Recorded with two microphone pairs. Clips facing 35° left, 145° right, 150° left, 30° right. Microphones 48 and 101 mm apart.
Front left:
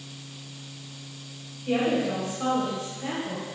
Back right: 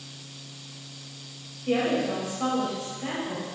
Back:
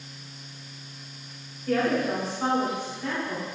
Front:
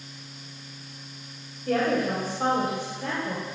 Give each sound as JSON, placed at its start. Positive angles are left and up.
{"t": 1.7, "sound": "a woman speaking", "azimuth_deg": -60, "distance_m": 1.8}